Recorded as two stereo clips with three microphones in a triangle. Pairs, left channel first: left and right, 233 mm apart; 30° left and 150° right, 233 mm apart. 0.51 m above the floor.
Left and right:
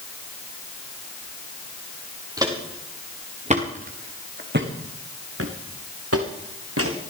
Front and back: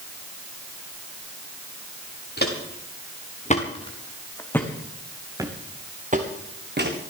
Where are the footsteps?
15° right, 3.5 m; by 7.0 s 110° right, 3 m.